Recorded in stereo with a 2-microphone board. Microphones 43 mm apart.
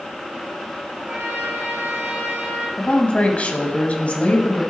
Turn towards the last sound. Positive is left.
turn(degrees=35)  # may be behind; listen again after turning